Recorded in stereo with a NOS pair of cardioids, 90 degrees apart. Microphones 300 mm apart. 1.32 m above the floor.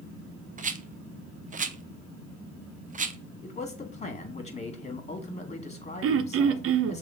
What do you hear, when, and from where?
0.6 s a rattle: 25° right, 0.8 m
3.4 s a man speaking: 25° left, 2.5 m
6.0 s throat clearing: 50° right, 0.7 m